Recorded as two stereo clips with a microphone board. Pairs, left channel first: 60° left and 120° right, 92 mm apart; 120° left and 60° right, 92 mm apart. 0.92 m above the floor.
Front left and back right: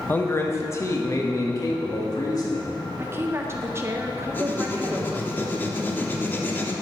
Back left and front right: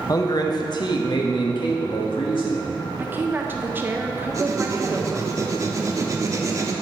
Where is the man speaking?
115° left, 0.8 m; by 2.8 s 100° left, 2 m.